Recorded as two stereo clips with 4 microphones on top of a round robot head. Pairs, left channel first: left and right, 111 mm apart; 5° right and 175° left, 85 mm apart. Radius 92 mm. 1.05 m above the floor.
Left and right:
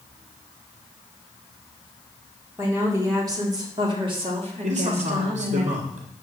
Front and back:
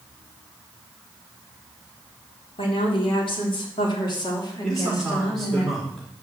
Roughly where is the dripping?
I don't hear dripping.